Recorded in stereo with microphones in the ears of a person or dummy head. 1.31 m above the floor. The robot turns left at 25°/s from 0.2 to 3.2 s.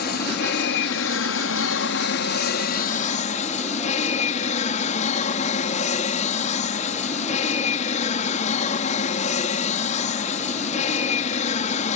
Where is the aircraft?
120° left; by 12.0 s 45° left.